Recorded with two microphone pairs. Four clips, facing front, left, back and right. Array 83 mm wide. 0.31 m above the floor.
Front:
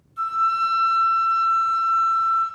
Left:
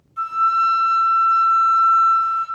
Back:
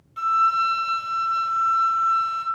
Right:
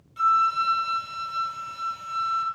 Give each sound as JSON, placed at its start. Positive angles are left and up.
{"t": 0.2, "sound": "a flute", "azimuth_deg": 175, "distance_m": 1.7}